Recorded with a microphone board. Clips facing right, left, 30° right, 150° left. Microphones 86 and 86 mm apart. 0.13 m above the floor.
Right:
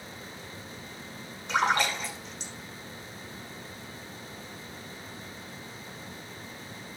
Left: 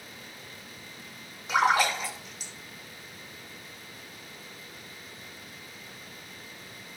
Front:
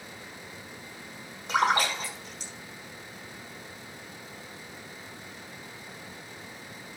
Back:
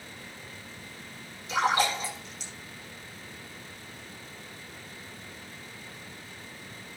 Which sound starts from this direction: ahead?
A splash, at 1.5 s.